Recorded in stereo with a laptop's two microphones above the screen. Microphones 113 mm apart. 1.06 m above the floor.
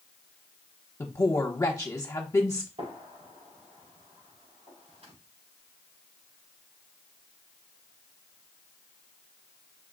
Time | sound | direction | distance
1.0 | a woman speaking | 30° left (ahead or behind) | 1.0 m
2.8 | a gunshot | 85° right | 3.5 m